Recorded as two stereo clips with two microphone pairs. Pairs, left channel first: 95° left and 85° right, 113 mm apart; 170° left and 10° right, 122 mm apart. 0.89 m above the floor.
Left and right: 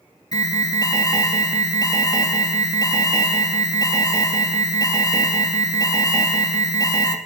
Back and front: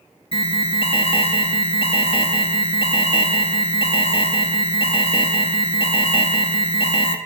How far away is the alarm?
About 2.5 m.